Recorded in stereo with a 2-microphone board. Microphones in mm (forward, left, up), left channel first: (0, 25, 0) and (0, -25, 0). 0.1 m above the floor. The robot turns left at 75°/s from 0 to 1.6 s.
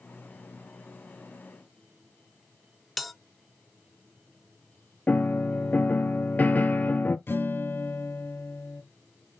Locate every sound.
3.0 s a bell: centre (ahead or behind), 0.8 m
5.1 s a piano: 35° left (ahead or behind), 0.6 m
7.3 s a guitar: 50° left (ahead or behind), 1.7 m